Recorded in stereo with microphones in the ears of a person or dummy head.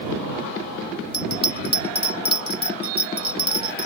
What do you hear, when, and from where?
1.1 s a bell: 30° left (ahead or behind)